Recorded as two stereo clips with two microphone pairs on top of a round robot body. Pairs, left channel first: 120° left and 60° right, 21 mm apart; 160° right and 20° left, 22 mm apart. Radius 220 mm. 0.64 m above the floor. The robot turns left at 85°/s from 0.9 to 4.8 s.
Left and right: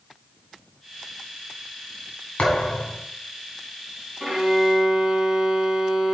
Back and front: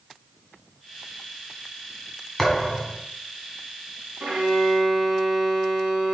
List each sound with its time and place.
2.4 s a thud: 120° left, 1.9 m; by 3.0 s 70° left, 1.9 m
4.2 s a violin: 15° left, 2.5 m; by 6.1 s 35° right, 2.5 m